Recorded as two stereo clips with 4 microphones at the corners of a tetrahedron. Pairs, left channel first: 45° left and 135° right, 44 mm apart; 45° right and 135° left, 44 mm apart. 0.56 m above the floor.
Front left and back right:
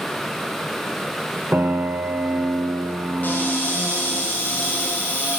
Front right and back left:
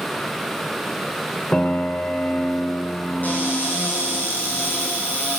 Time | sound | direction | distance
1.5 | a piano | 105° right | 0.9 m
3.2 | a cupboard door | straight ahead | 3 m